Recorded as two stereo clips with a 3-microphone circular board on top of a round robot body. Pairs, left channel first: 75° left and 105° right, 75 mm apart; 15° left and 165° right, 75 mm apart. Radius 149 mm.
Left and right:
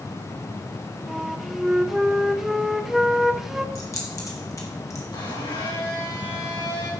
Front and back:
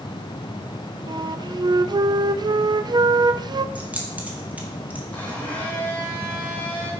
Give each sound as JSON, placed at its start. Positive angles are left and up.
{"t": 1.1, "sound": "a flute", "azimuth_deg": 170, "distance_m": 0.5}
{"t": 3.8, "sound": "keys jangling", "azimuth_deg": 120, "distance_m": 2.0}
{"t": 5.1, "sound": "a blender", "azimuth_deg": 80, "distance_m": 4.0}